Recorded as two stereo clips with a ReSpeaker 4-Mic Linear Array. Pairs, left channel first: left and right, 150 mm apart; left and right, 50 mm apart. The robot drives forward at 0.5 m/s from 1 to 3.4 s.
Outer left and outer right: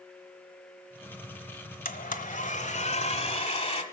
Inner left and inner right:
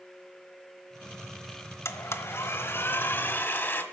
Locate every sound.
1.9 s a blender: 70° left (ahead or behind), 1.1 m; by 3.8 s 40° left (ahead or behind), 1.5 m